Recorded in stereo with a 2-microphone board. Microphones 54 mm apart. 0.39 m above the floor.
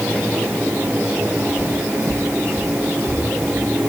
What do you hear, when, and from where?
1.6 s footsteps: 65° right (ahead or behind), 0.9 m; by 3.7 s 40° right (ahead or behind), 2.5 m